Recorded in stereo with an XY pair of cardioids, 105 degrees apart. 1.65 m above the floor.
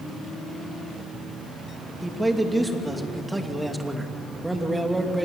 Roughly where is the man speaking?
Ahead.